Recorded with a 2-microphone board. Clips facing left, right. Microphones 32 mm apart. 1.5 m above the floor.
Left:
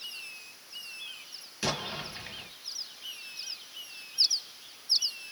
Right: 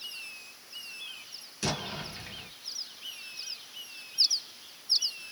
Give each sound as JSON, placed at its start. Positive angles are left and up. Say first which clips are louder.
{"t": 1.6, "sound": "an explosion", "louder": "left 1 dB", "side_deg": 15, "distance_m": 1.4}